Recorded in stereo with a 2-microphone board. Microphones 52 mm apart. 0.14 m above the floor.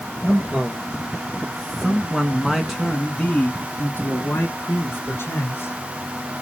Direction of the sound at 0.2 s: 30° right (ahead or behind).